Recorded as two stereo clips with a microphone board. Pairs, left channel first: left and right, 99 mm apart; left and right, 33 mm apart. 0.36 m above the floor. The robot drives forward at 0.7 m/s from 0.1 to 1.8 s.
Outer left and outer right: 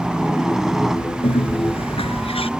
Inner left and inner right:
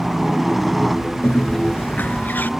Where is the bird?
65° left (ahead or behind); by 2.5 s 75° left (ahead or behind).